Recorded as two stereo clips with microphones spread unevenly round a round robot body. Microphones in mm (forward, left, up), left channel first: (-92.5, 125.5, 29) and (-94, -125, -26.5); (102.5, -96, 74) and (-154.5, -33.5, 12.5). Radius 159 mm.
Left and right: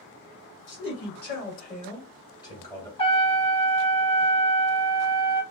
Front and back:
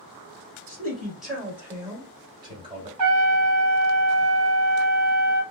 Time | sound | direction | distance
0.7 | a man speaking | 90° left | 1.7 m
3.0 | a trumpet | 160° left | 0.7 m